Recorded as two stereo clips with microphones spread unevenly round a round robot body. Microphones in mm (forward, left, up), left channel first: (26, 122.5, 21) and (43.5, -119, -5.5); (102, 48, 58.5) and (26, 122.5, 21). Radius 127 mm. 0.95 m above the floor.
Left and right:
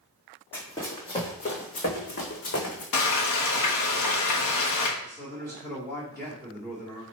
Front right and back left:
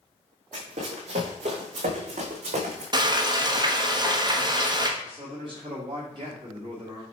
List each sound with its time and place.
0.5 s running footsteps: 170° left, 2 m; by 2.8 s 130° left, 2.5 m
2.9 s frying: 100° left, 1.4 m
5.0 s a man speaking: 175° left, 2.5 m